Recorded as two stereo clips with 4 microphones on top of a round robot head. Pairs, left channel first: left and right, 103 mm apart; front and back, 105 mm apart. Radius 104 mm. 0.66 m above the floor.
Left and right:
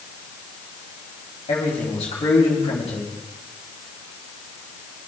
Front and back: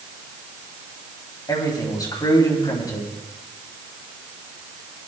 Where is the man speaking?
50° left, 3.5 m.